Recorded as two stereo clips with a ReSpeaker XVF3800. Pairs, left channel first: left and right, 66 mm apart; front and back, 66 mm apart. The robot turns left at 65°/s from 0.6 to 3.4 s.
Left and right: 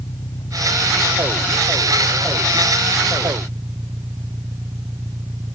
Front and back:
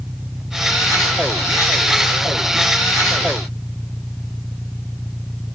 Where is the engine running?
100° left; by 5.5 s 80° right.